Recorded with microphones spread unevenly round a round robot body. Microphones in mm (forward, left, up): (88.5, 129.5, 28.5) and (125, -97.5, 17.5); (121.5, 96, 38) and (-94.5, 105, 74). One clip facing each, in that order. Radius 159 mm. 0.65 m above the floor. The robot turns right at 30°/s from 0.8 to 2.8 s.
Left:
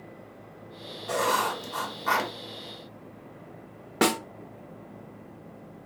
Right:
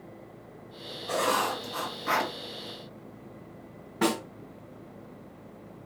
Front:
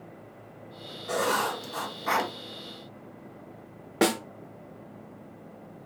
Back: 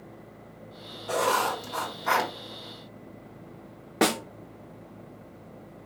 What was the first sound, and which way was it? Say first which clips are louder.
Writing: even, back 1 dB; 60° left.